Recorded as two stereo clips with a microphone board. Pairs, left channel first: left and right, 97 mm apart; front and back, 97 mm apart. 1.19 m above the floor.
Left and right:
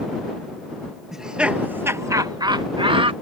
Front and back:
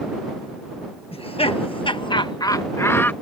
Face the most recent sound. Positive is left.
turn(degrees=-70)